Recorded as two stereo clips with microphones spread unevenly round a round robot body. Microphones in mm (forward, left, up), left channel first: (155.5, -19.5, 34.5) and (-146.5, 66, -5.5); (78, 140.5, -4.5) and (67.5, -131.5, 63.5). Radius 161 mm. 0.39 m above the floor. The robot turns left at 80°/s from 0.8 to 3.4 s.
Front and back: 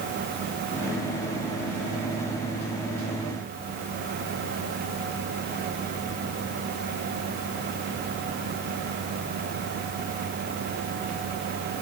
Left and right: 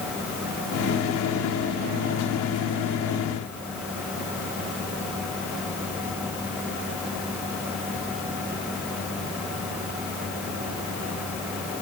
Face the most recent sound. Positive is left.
No sound to turn to.